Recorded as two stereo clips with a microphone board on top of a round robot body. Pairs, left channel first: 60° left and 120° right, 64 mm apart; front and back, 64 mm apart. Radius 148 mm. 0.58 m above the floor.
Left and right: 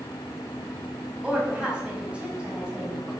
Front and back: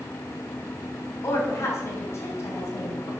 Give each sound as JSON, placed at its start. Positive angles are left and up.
{"t": 1.2, "sound": "a woman speaking", "azimuth_deg": -45, "distance_m": 4.0}